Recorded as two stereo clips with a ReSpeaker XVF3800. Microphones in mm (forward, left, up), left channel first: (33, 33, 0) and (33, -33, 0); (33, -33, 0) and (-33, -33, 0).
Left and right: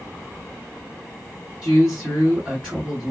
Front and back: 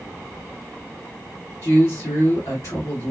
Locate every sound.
1.6 s a man speaking: 15° right, 2.5 m